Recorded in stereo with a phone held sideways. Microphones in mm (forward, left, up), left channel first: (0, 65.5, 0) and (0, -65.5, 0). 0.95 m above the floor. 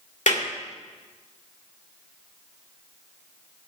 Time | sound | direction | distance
0.3 | a clap | 70° left (ahead or behind) | 2.5 m